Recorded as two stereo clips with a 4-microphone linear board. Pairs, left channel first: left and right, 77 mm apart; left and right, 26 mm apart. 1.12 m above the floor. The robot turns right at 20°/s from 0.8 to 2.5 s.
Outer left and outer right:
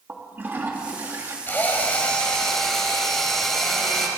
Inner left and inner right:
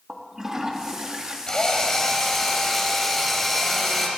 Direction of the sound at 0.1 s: 25° right (ahead or behind).